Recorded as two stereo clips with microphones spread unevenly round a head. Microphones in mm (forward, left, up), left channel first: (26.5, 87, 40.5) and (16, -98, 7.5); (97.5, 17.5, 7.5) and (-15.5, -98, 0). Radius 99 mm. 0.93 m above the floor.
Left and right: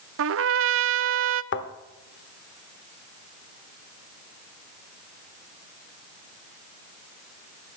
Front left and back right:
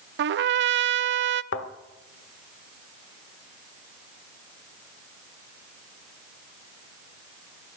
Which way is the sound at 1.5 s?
65° left.